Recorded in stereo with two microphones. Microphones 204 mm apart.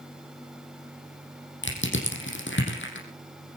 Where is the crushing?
65° left (ahead or behind), 5 m.